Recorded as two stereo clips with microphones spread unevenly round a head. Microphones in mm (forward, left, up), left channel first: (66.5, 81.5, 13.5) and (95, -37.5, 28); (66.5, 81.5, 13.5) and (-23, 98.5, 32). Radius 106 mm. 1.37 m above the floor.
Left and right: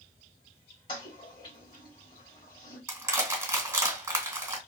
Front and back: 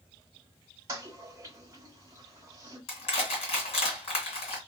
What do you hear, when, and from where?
0.9 s a toilet flushing: 155° left, 1.0 m
2.9 s crushing: 20° right, 1.9 m